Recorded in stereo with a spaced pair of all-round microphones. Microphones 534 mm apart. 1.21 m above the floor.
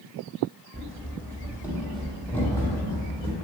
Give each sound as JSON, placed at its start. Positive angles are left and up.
{"t": 0.7, "sound": "running footsteps", "side_deg": -15, "distance_m": 1.8}